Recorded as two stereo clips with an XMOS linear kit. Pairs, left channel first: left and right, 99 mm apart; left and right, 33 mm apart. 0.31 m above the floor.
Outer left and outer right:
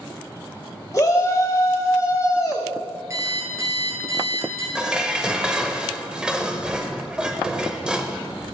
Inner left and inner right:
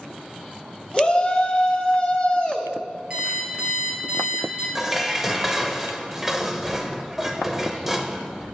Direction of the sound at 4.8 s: 10° right (ahead or behind).